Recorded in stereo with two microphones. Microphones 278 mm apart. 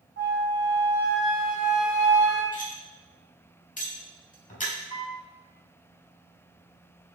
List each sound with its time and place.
0.2 s a flute: 50° right (ahead or behind), 0.9 m
2.5 s cutlery clinking: 25° left (ahead or behind), 0.6 m
4.9 s a piano: 55° right (ahead or behind), 0.9 m